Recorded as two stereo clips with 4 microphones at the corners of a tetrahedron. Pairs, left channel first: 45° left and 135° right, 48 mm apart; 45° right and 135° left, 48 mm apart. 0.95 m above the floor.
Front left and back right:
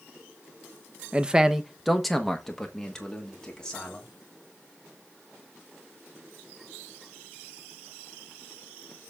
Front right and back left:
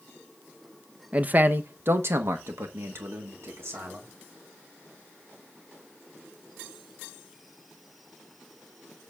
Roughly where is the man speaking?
Behind.